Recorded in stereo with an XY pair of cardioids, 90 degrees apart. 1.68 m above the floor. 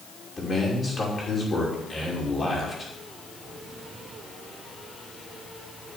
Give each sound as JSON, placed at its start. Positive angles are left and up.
{"t": 0.4, "sound": "a man speaking", "azimuth_deg": 35, "distance_m": 5.5}